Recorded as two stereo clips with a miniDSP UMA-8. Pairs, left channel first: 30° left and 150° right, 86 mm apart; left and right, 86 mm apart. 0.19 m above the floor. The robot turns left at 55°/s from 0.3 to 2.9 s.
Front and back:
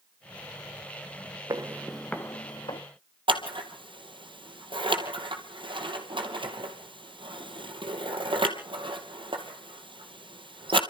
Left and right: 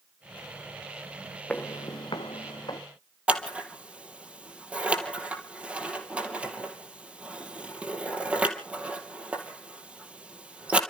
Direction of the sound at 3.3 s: 165° right.